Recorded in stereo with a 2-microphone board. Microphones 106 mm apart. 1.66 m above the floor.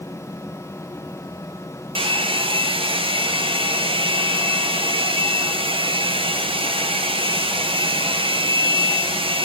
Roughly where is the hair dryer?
Right.